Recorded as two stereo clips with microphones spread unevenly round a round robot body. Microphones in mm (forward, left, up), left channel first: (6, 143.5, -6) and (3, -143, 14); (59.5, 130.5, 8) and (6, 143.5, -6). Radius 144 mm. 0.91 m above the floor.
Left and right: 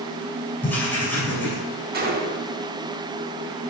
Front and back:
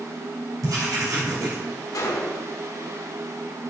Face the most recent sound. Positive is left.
turn(degrees=-30)